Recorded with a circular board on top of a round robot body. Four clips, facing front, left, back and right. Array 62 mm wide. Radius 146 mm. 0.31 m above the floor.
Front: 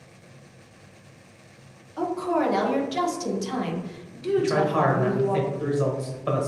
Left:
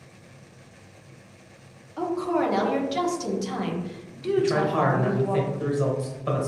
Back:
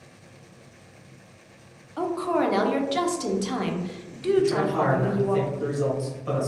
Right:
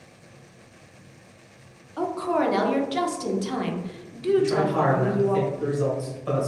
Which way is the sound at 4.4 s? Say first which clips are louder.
Left 2 dB, front 2 dB; 25° left.